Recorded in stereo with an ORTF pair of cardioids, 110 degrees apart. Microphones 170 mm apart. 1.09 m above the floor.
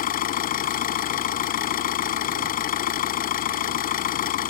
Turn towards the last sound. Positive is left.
turn(degrees=60)